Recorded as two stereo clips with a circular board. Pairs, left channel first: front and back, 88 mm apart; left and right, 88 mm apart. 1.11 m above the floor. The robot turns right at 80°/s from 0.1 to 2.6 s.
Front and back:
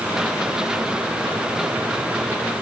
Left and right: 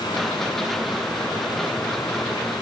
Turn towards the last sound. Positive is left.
No sound to turn to.